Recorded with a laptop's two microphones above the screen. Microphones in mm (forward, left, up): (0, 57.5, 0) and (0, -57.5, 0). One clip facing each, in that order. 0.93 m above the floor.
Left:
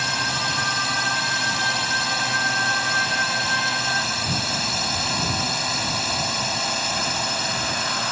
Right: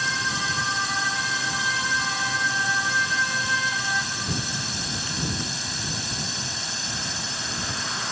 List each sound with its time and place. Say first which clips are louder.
0.0 s a drone: left 2 dB; 70° left (ahead or behind)